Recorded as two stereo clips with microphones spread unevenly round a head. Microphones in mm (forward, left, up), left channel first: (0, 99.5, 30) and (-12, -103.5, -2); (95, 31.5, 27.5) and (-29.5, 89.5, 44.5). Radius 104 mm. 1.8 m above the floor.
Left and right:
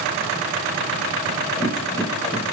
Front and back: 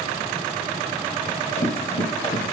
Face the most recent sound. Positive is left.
turn(degrees=10)